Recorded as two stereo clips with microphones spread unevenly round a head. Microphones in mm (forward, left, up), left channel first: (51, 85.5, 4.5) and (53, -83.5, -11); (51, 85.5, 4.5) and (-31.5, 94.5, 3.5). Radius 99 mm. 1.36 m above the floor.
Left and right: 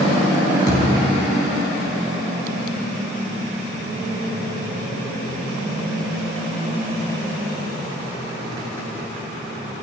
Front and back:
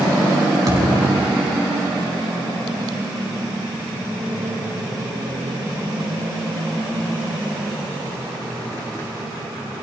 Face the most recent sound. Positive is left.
turn(degrees=135)